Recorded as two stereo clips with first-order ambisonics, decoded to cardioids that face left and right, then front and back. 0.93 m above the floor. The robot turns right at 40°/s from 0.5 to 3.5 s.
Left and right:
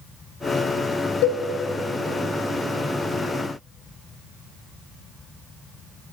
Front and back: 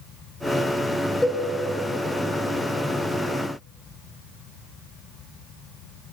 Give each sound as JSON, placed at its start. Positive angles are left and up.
{"t": 1.2, "sound": "a cowbell", "azimuth_deg": 85, "distance_m": 1.5}